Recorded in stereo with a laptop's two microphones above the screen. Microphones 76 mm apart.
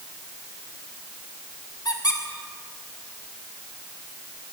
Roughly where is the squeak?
Left.